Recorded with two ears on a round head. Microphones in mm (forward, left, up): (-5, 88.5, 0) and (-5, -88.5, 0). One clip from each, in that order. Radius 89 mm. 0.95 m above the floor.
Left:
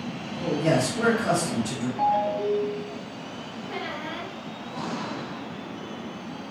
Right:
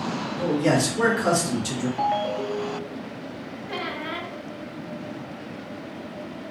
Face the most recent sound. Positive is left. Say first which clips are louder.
# right 3 dB
turn(degrees=-20)  # may be behind; listen again after turning